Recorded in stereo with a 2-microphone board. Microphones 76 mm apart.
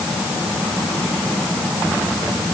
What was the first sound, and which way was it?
Only background noise.